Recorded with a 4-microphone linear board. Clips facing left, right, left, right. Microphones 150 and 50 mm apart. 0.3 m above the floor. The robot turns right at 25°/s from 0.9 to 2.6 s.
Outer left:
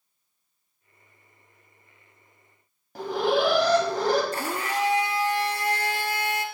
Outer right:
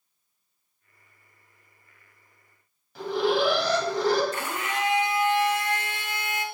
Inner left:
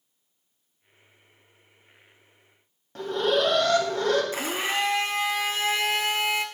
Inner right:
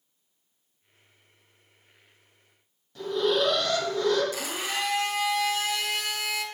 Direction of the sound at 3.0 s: 50° left (ahead or behind).